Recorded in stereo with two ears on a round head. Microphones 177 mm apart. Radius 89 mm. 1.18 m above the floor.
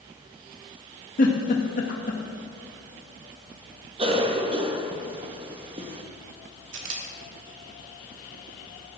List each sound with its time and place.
1.2 s a giggle: 45° left (ahead or behind), 1.7 m
4.0 s a cough: 30° right (ahead or behind), 1.1 m
6.7 s a camera shutter: 70° right (ahead or behind), 1.9 m